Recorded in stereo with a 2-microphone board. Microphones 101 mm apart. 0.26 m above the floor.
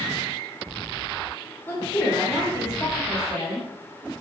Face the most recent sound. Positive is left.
turn(degrees=25)  # may be behind; listen again after turning